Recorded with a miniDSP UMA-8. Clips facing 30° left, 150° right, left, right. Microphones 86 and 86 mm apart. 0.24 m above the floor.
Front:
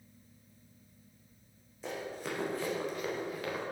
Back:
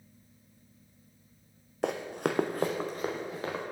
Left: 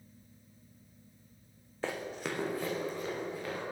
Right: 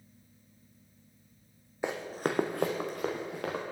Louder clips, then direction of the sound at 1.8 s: Back 8 dB, right 4 dB; 165° right.